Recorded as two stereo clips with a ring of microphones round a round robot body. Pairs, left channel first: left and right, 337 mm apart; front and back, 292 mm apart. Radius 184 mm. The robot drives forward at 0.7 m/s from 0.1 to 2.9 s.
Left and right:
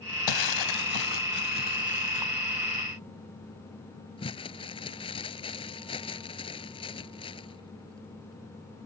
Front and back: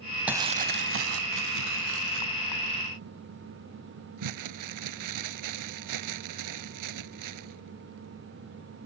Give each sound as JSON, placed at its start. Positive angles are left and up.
{"t": 0.3, "sound": "crumpling", "azimuth_deg": 95}